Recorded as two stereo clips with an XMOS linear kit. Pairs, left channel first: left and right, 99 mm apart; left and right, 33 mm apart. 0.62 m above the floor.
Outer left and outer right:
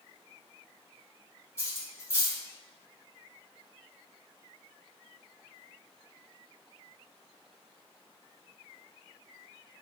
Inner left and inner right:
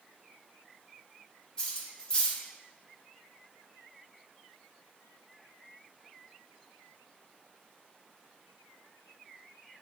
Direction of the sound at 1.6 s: 25° left (ahead or behind).